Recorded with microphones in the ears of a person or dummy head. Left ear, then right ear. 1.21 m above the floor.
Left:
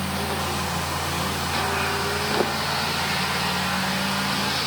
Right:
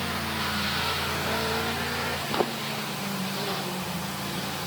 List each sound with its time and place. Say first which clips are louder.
2.3 s footsteps: left 3 dB; 10° right (ahead or behind)